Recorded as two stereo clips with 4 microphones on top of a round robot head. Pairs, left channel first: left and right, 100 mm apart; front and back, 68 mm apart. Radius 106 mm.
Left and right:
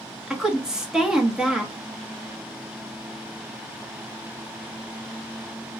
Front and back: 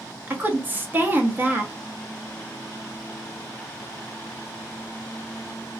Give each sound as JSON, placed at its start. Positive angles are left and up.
{"t": 0.3, "sound": "a woman speaking", "azimuth_deg": -165, "distance_m": 0.9}